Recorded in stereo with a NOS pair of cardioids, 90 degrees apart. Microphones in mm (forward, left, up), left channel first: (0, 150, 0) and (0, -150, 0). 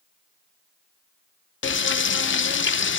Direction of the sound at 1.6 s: 40° left.